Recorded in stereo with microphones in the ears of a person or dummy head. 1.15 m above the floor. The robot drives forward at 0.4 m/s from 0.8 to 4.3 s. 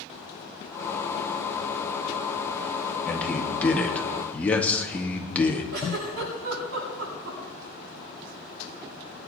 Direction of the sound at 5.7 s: 75° right (ahead or behind).